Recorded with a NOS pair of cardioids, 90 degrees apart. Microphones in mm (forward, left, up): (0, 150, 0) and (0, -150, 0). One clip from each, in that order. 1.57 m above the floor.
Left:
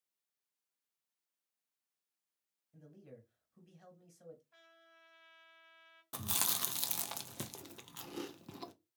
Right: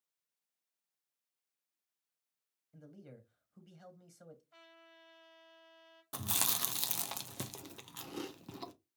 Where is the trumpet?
25° right, 2.0 m.